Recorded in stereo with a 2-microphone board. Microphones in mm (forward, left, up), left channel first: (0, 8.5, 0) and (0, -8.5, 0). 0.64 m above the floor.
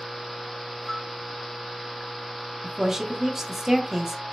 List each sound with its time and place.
0.8 s a flute: 20° left (ahead or behind), 1.2 m
2.6 s a woman speaking: 25° right (ahead or behind), 0.9 m